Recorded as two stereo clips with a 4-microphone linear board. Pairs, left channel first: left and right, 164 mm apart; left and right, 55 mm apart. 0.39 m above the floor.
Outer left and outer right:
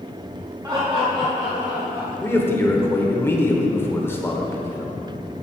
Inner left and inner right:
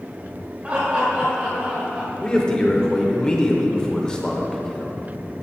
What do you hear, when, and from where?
0.6 s laughter: 30° right (ahead or behind), 1.5 m; by 2.1 s 25° right (ahead or behind), 1.2 m
2.2 s a man speaking: 15° left (ahead or behind), 0.8 m